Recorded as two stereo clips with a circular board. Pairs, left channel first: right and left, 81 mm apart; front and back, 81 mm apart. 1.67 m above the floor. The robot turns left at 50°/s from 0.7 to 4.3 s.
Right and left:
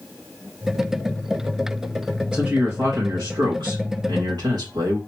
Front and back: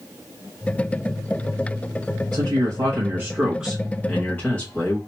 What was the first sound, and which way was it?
A man speaking, 170° left.